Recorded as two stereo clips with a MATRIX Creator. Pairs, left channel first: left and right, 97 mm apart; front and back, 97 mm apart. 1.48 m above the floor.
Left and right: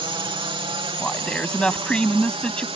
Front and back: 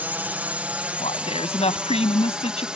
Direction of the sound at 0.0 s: 110° right.